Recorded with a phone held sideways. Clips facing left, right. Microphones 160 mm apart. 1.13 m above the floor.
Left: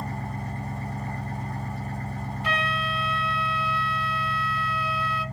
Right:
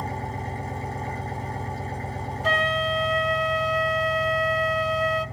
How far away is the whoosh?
No whoosh in this recording.